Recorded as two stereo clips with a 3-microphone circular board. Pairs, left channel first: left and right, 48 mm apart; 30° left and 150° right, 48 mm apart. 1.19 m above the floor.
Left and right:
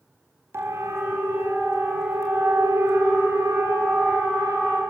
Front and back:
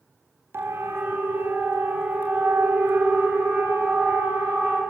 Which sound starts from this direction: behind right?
A siren, at 0.5 s.